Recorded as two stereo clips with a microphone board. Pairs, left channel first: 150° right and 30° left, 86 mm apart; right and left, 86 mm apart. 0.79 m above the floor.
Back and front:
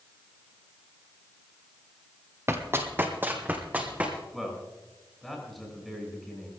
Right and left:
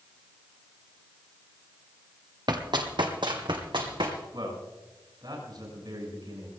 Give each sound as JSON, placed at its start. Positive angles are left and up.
{"t": 2.5, "sound": "running footsteps", "azimuth_deg": 85, "distance_m": 1.5}
{"t": 4.3, "sound": "a man speaking", "azimuth_deg": 120, "distance_m": 6.5}